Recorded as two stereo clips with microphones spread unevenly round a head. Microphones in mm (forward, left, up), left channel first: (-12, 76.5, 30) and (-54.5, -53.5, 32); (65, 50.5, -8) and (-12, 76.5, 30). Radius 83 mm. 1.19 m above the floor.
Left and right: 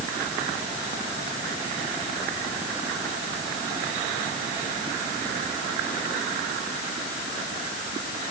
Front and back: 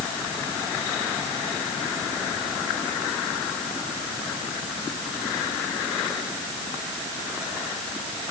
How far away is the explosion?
I don't hear an explosion.